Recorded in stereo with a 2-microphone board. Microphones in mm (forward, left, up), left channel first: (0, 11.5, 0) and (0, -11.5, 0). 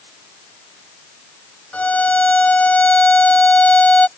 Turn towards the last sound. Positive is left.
turn(degrees=75)  # may be behind; listen again after turning